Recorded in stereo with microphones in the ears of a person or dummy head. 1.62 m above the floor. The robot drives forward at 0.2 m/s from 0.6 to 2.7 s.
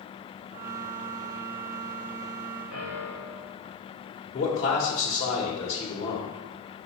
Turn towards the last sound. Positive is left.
turn(degrees=30)  # may be behind; listen again after turning